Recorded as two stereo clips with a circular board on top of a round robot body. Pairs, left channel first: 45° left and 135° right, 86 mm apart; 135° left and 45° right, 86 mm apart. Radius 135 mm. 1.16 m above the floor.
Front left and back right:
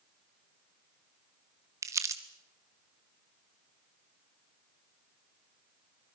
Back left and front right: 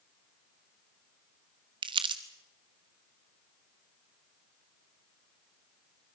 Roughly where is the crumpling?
Right.